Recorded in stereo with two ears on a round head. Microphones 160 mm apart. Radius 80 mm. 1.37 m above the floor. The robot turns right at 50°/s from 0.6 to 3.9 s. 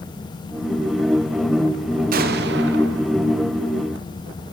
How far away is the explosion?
About 0.8 m.